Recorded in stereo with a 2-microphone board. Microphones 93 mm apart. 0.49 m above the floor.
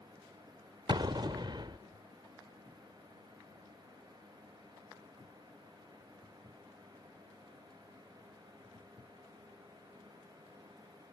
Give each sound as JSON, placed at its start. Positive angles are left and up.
{"t": 0.9, "sound": "an explosion", "side_deg": -50, "distance_m": 0.7}